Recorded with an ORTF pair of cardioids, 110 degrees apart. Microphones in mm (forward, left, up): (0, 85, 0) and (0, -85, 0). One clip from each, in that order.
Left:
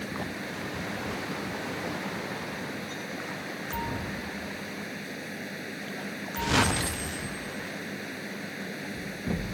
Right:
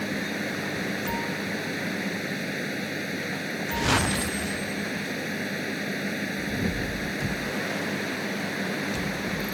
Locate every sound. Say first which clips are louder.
0.0 s a fan: right 5 dB; 40° right